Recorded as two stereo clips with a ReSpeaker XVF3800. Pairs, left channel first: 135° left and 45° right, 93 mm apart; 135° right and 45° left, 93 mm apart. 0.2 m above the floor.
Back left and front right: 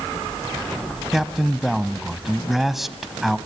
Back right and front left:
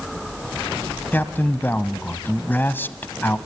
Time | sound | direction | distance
1.1 | a man speaking | 130° right | 1.0 m